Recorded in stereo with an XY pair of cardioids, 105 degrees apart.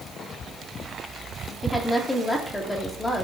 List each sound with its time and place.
1.6 s a woman speaking: 15° left, 3.5 m